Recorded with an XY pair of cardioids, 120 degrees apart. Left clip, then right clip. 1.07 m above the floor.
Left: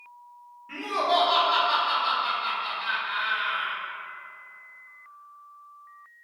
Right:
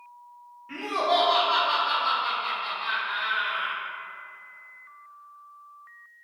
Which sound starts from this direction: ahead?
Laughter, at 0.7 s.